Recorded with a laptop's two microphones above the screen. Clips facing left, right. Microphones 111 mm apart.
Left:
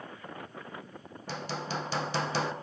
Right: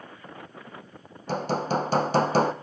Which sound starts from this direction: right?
Hammering, at 1.3 s.